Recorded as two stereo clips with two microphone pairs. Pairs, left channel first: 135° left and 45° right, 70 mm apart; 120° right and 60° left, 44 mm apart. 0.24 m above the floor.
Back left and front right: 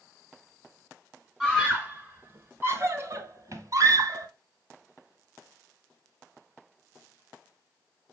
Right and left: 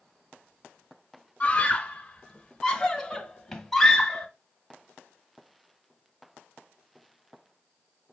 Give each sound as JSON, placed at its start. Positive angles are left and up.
{"t": 1.4, "sound": "a scream", "azimuth_deg": -115, "distance_m": 1.1}